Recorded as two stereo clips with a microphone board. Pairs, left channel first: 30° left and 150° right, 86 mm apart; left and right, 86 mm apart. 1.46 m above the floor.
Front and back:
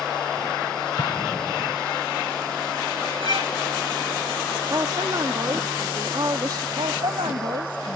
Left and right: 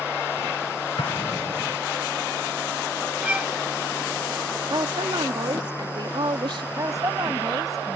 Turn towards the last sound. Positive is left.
turn(degrees=-140)